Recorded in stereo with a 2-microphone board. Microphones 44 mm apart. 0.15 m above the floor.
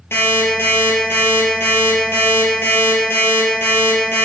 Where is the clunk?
I don't hear a clunk.